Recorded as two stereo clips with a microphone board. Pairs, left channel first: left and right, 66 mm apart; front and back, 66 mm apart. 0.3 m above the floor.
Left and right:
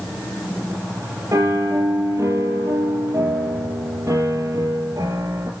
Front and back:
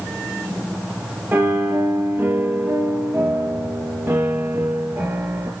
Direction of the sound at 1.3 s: 125° right.